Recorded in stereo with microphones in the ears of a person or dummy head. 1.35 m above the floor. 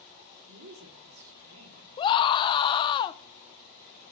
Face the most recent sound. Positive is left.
turn(degrees=30)  # may be behind; listen again after turning